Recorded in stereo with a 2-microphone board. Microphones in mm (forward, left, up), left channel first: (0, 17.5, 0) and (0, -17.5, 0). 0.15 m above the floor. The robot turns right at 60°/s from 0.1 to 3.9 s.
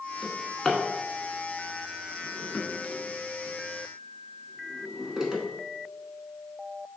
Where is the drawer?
10° right (ahead or behind), 0.8 m; by 5.4 s 15° right (ahead or behind), 0.8 m.